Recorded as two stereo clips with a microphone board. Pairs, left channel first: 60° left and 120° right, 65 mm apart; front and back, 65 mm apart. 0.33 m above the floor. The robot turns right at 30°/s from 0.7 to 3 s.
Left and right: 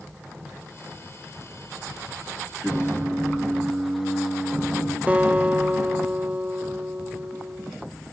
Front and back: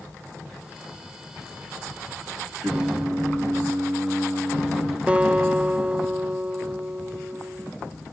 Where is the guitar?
145° right, 0.5 m.